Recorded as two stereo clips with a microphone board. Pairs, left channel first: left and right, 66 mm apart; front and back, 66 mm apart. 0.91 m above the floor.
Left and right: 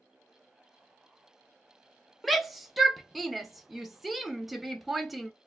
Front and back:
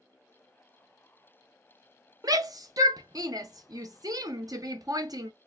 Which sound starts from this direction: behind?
A shout, at 2.2 s.